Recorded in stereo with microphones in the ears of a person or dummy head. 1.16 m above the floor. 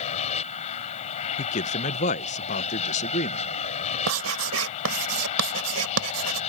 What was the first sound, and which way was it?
An aircraft, 40° left (ahead or behind).